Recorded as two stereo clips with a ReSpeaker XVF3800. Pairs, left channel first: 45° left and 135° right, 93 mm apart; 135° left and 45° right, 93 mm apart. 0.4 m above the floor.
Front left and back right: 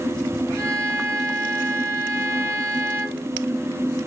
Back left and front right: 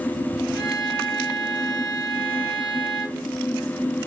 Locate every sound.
0.5 s a violin: 170° left, 3.5 m